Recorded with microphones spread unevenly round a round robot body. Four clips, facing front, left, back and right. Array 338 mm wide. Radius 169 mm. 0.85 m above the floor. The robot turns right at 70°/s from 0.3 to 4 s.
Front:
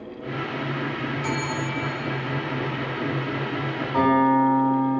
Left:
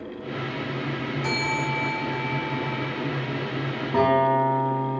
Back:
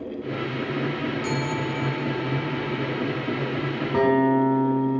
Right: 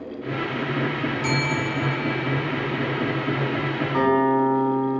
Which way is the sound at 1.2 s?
140° right.